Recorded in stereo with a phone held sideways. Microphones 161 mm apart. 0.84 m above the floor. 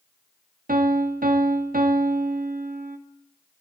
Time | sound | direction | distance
0.7 | a piano | 60° right (ahead or behind) | 0.6 m